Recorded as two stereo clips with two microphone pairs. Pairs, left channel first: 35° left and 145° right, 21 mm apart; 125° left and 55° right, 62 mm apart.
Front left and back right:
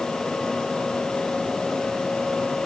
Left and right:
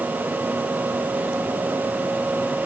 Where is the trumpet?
No trumpet in this recording.